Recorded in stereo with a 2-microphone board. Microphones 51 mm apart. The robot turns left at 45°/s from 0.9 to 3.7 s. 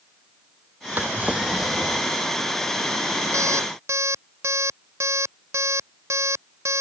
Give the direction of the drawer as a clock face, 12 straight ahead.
5 o'clock.